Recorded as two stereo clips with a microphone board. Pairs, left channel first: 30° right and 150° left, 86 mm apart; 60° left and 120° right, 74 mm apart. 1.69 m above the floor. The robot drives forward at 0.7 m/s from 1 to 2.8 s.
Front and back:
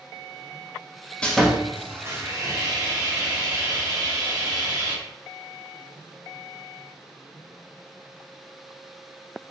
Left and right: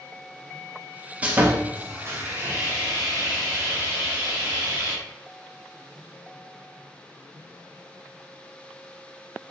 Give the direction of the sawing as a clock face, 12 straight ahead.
3 o'clock.